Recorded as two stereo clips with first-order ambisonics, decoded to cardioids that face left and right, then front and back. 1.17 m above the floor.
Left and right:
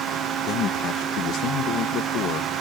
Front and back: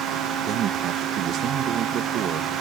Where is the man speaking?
135° left.